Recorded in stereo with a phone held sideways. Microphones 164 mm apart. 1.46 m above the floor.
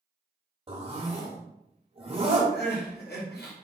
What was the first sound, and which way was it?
A zipper, 35° right (ahead or behind).